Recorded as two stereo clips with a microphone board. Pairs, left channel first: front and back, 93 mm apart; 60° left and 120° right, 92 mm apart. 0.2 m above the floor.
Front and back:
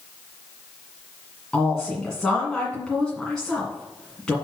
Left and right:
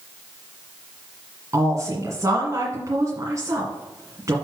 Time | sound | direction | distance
1.5 | a woman speaking | 80° right | 1.8 m